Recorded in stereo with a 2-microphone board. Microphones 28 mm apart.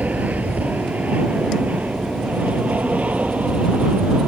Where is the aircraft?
75° right (ahead or behind); by 4.3 s 55° right (ahead or behind).